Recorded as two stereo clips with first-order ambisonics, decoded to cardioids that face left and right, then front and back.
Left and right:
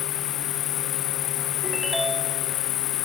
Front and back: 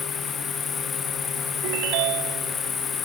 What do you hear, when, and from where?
0.0 s an insect: 65° left
1.6 s a ringtone: 175° right